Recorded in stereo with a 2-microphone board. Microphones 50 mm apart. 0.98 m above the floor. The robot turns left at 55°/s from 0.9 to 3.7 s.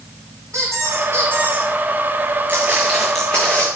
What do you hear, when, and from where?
0.5 s a squeak: 110° right, 5.5 m; by 1.7 s 155° right, 5.5 m
2.5 s footsteps: 35° right (ahead or behind), 3 m; by 3.7 s 40° left (ahead or behind), 3 m